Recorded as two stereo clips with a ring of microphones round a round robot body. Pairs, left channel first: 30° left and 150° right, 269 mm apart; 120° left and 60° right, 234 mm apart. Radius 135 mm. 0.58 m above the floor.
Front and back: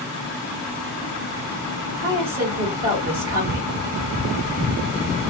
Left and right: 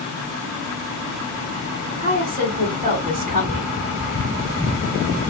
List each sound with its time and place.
2.0 s a woman speaking: 120° right, 2.5 m